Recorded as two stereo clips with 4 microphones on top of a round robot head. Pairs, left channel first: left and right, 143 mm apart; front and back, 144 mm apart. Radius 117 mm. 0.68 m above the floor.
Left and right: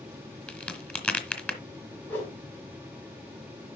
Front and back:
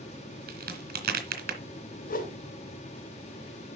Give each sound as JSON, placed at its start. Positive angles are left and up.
{"t": 0.5, "sound": "a crack", "azimuth_deg": 170, "distance_m": 2.5}
{"t": 2.0, "sound": "a whoosh", "azimuth_deg": 10, "distance_m": 3.0}